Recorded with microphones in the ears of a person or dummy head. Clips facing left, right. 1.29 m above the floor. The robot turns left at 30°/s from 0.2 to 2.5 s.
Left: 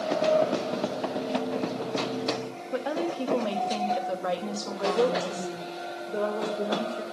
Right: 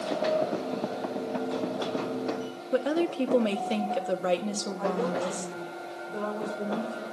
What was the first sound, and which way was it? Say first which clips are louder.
A woman speaking: right 3 dB; 35° right (ahead or behind).